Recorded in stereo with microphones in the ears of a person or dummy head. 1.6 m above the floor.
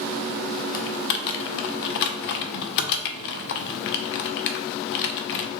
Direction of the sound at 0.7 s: 50° left (ahead or behind).